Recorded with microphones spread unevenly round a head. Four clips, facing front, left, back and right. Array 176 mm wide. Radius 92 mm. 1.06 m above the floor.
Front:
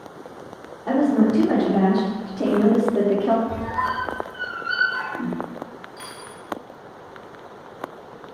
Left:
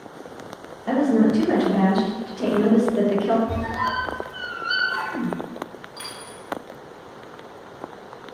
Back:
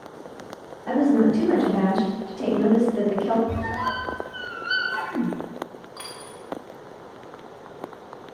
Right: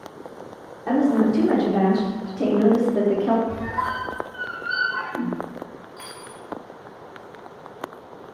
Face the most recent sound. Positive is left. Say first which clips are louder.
# left 1 dB, front 1 dB
turn(degrees=-165)